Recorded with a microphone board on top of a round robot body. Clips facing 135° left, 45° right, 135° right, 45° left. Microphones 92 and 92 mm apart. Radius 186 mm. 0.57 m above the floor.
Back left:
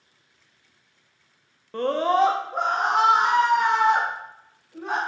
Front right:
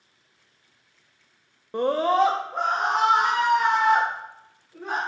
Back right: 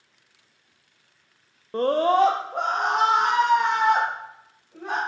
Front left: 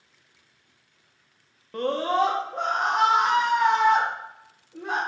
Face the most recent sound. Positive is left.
turn(degrees=-150)